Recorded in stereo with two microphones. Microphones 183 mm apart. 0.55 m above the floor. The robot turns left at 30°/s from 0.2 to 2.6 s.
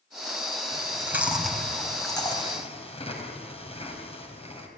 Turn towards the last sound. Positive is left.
turn(degrees=35)  # may be behind; listen again after turning